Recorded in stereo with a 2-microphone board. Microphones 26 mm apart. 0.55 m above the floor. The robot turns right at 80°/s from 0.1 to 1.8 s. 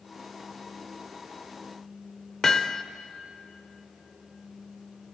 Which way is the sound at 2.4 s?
15° left (ahead or behind).